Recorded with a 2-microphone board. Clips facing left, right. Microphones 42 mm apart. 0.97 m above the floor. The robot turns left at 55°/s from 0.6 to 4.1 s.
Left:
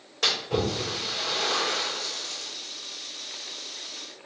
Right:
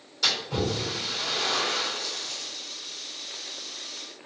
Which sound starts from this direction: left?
A splash, at 0.2 s.